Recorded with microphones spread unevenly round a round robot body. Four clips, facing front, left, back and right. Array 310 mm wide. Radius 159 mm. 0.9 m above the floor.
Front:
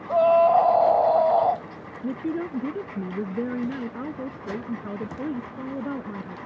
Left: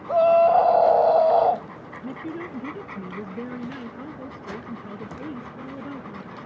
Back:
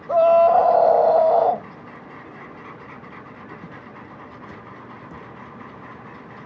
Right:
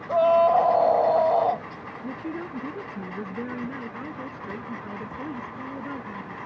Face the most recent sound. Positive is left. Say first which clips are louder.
# even, front 11 dB
turn(degrees=0)